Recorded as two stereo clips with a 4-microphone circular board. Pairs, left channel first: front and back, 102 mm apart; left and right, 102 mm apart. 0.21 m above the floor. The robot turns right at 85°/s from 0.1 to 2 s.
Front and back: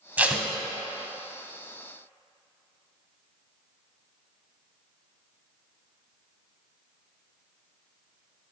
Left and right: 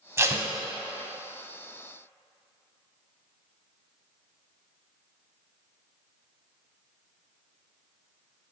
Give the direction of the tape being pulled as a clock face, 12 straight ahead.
4 o'clock.